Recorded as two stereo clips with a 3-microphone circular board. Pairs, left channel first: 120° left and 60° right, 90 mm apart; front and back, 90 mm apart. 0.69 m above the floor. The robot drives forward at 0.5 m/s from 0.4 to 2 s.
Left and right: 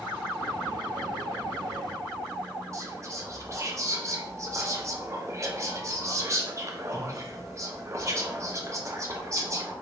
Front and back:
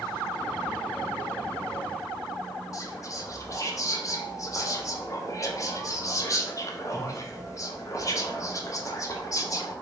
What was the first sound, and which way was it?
Whispering, 25° right.